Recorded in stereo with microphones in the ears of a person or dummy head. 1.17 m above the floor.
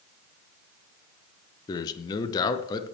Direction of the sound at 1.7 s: 20° left (ahead or behind).